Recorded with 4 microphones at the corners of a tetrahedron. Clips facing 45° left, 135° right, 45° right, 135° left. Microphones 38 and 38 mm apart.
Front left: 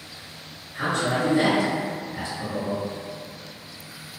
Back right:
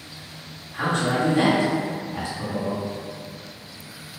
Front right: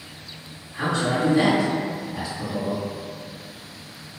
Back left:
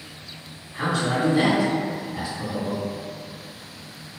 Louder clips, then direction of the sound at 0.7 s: Back right 1 dB, even; 135° right.